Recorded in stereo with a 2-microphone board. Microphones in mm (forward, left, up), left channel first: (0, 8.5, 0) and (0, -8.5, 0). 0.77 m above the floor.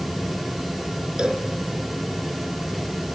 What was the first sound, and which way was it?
A cowbell, 50° right (ahead or behind).